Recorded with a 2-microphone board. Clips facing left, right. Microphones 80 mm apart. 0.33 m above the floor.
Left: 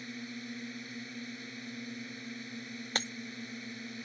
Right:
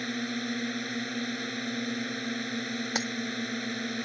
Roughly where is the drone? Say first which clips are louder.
Right 10 dB; right.